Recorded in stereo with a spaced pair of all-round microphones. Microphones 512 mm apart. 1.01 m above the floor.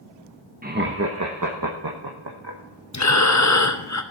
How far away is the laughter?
About 1.1 m.